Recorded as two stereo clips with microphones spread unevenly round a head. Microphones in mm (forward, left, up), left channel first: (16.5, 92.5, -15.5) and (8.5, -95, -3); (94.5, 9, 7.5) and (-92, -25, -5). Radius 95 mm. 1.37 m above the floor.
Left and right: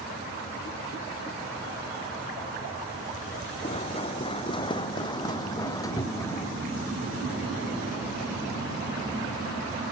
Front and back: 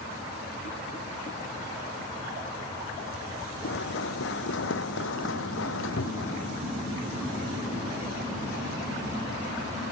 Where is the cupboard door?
25° left.